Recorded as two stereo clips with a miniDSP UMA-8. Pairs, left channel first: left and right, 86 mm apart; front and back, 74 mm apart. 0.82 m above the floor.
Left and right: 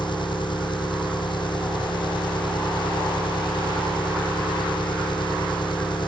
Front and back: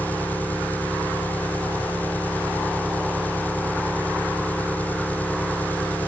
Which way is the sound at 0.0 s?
65° left.